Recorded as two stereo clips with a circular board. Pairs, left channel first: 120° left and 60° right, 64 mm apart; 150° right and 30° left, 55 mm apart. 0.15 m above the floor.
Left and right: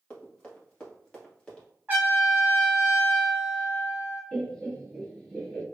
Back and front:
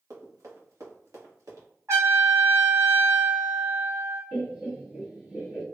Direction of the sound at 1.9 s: 5° left.